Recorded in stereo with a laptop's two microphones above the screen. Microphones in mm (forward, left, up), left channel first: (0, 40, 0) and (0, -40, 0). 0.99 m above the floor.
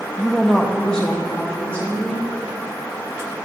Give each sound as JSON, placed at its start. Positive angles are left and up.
{"t": 0.2, "sound": "a woman speaking", "side_deg": -10, "distance_m": 0.5}